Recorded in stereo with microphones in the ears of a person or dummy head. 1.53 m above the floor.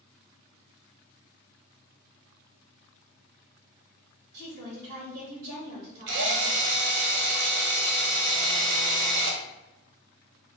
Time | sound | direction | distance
4.3 | a woman speaking | 50° right (ahead or behind) | 1.1 m
6.1 | a drill | 60° right (ahead or behind) | 0.6 m